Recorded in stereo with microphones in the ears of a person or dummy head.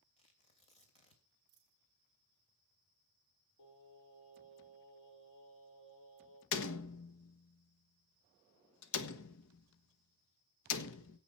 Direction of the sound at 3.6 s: 65° left (ahead or behind).